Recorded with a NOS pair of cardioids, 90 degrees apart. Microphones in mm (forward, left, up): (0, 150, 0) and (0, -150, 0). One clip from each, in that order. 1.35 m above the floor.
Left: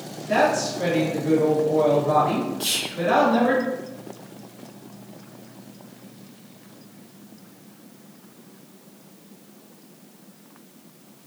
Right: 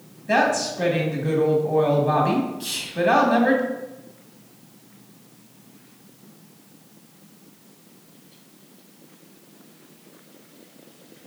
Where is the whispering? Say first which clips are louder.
Left 1 dB; 30° left, 0.7 m.